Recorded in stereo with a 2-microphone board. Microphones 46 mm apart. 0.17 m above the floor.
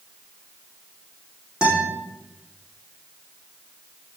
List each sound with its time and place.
1.6 s a guitar: 20° right (ahead or behind), 5.5 m